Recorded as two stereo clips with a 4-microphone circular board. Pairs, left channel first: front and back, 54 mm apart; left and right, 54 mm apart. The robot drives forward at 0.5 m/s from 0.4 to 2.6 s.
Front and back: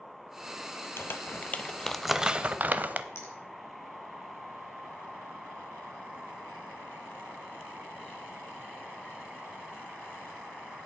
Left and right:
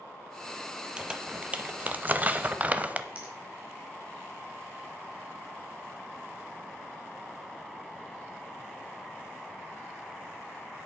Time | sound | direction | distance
1.0 | crumpling | 25° right | 0.7 m
3.1 | a finger snap | 25° right | 3 m